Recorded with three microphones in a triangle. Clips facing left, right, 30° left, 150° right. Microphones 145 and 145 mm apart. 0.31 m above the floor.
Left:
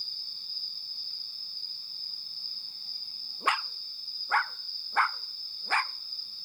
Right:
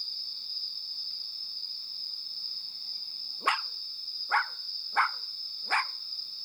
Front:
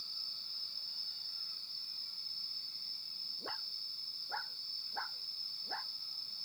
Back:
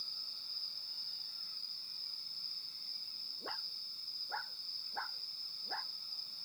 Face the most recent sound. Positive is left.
turn(degrees=45)